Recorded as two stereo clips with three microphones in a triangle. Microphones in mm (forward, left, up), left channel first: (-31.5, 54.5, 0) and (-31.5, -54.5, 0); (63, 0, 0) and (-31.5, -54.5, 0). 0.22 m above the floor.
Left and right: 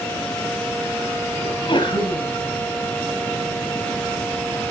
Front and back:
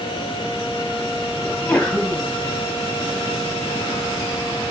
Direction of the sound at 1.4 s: 110° left.